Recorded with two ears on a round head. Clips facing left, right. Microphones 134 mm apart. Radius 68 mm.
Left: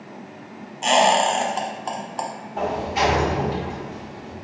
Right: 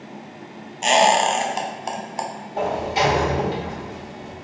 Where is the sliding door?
35° right (ahead or behind), 1.6 m.